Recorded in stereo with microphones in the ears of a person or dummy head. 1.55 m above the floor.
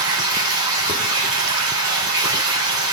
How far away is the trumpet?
I don't hear a trumpet.